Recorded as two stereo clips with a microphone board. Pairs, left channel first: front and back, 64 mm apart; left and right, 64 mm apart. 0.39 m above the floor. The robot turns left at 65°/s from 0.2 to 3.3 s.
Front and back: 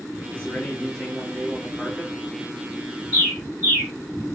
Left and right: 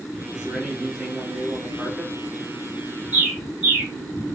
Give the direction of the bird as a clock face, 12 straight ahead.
4 o'clock.